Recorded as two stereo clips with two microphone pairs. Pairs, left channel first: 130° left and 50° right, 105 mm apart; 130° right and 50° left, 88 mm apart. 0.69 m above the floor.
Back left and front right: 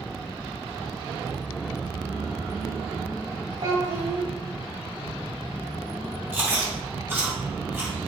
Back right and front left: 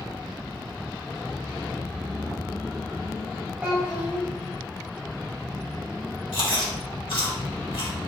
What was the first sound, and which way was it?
A child speaking, 25° right.